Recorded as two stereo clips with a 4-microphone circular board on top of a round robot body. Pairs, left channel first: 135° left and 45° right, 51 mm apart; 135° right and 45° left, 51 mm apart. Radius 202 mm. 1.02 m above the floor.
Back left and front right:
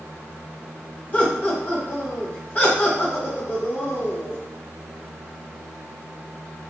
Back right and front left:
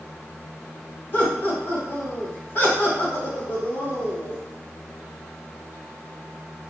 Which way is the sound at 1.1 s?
170° right.